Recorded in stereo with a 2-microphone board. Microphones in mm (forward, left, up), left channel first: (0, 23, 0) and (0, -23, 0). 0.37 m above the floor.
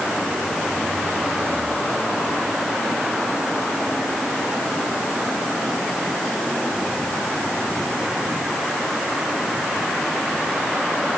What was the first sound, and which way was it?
Only background noise.